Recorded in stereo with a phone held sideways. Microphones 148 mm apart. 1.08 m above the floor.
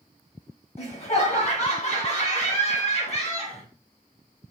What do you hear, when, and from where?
0.8 s laughter: 40° left (ahead or behind), 1.4 m